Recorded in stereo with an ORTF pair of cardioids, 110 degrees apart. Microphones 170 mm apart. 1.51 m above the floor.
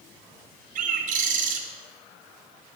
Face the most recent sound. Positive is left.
turn(degrees=-50)